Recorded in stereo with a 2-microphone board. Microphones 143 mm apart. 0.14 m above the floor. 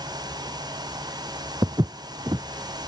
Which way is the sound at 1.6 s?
30° right (ahead or behind).